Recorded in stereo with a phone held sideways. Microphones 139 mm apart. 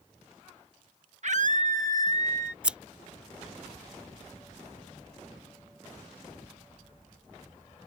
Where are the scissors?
5° right (ahead or behind).